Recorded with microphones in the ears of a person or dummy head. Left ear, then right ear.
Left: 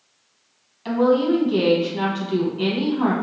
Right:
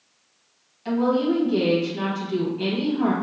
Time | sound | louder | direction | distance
0.8 | a woman speaking | left 4 dB | 15° left (ahead or behind) | 1.3 m